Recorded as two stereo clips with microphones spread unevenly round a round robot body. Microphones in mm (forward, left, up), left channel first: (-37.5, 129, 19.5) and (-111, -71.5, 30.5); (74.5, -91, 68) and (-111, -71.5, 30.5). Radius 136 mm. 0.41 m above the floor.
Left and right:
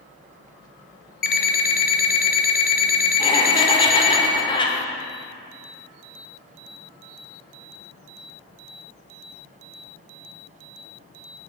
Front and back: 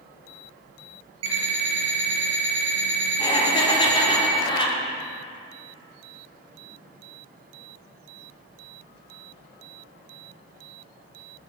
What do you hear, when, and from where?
1.2 s an alarm clock: 115° left, 0.8 m
3.2 s laughter: 50° left, 0.9 m